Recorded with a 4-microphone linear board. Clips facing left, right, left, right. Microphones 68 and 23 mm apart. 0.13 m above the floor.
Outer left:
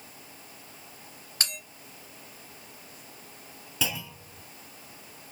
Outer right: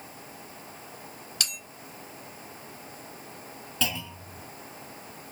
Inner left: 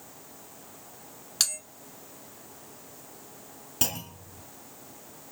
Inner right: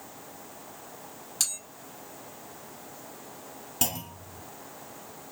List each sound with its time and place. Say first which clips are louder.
1.4 s a bell: outer left 2 dB, inner left 3 dB; 35° left (ahead or behind), 2 m
3.8 s a clunk: outer right 1 dB, even; 15° left (ahead or behind), 0.7 m